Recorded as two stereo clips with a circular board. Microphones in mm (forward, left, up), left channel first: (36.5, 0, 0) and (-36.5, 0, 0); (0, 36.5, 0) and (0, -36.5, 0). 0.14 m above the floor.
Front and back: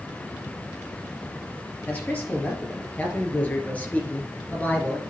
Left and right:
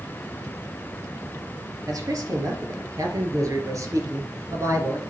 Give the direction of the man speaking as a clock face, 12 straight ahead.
2 o'clock.